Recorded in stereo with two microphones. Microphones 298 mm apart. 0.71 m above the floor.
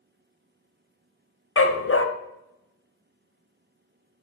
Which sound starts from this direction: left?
A dog barking, at 1.6 s.